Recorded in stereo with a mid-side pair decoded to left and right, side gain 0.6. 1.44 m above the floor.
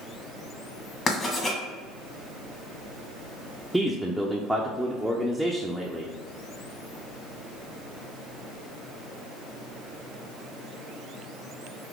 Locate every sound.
1.1 s writing: 35° left, 1.5 m
3.7 s a man speaking: straight ahead, 0.6 m